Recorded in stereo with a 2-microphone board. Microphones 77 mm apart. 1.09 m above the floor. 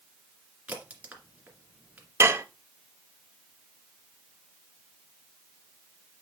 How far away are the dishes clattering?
About 0.7 m.